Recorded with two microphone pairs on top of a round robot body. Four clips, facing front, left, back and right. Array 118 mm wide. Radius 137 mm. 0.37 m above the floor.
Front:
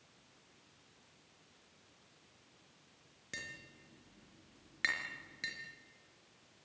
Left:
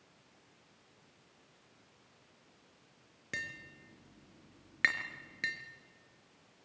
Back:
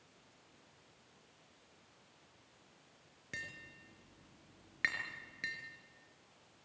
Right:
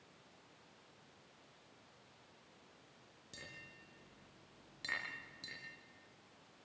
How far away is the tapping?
About 4 m.